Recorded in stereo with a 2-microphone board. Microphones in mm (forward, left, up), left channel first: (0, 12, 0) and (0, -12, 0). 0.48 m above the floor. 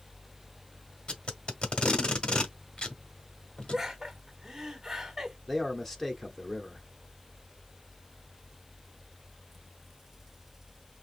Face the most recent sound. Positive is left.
turn(degrees=15)  # may be behind; listen again after turning